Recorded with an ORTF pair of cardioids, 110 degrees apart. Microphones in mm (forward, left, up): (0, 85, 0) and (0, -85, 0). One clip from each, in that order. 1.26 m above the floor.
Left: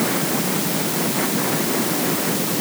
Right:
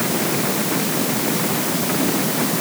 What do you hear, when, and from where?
Only background noise.